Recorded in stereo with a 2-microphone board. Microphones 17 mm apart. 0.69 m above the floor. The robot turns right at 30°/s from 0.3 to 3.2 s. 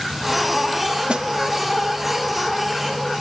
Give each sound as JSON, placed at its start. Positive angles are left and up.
{"t": 1.1, "sound": "a snare drum", "side_deg": -60, "distance_m": 0.5}